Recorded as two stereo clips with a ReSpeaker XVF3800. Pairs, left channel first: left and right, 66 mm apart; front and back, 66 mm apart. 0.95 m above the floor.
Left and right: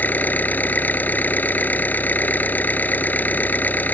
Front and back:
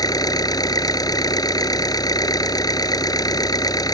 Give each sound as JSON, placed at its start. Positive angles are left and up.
{"t": 0.0, "sound": "an engine running", "azimuth_deg": 25}